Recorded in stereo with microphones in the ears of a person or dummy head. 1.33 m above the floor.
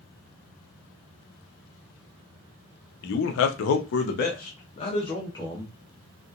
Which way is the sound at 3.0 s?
65° left (ahead or behind).